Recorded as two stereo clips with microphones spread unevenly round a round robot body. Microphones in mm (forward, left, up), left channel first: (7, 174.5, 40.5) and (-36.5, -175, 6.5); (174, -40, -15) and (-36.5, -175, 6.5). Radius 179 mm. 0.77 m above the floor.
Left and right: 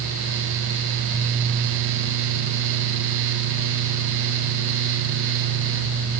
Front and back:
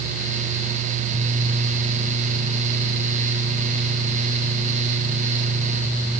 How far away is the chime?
No chime in this recording.